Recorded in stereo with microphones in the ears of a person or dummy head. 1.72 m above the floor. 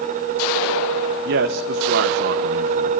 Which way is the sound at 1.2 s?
60° right (ahead or behind).